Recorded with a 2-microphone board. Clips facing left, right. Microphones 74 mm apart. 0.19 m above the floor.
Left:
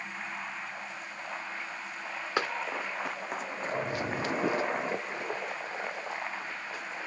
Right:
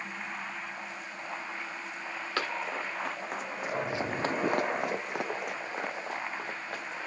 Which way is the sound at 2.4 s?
15° left (ahead or behind).